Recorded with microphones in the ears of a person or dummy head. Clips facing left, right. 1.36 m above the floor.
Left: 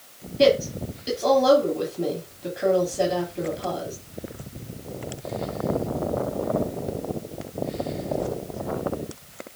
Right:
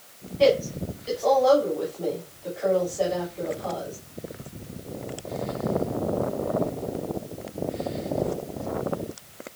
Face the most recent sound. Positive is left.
turn(degrees=55)  # may be behind; listen again after turning